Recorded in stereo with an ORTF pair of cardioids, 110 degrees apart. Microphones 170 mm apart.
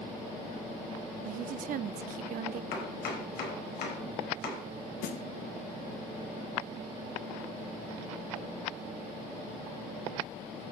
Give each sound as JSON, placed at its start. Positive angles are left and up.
{"t": 1.2, "sound": "a woman speaking", "azimuth_deg": -55, "distance_m": 0.6}
{"t": 2.7, "sound": "chopping", "azimuth_deg": 70, "distance_m": 5.0}
{"t": 5.0, "sound": "a snare drum", "azimuth_deg": 65, "distance_m": 1.6}